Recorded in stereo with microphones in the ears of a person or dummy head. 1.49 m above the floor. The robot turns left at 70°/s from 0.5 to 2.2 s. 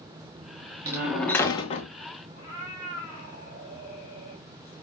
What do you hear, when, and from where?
0.8 s a door slam: 155° right, 0.8 m; by 1.9 s 130° left, 0.8 m
2.4 s a cat meowing: 30° right (ahead or behind), 1.7 m